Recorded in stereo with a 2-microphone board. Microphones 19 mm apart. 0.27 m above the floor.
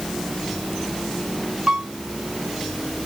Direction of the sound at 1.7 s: 60° right (ahead or behind).